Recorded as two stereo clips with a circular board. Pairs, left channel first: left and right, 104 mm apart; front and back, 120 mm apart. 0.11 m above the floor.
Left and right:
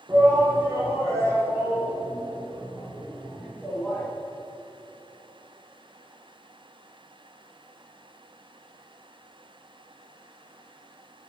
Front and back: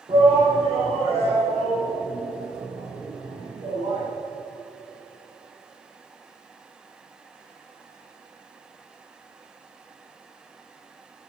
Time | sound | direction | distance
0.1 | a shout | 140° right | 3.5 m